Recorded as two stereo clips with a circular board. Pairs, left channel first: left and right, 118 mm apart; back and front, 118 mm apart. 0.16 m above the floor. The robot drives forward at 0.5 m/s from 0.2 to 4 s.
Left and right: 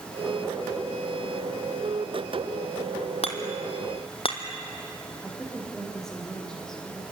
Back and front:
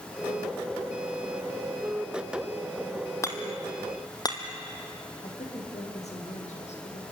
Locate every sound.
3.2 s hammering: 115° left, 2 m; by 4.4 s 125° left, 2 m
5.2 s a woman speaking: 175° left, 6 m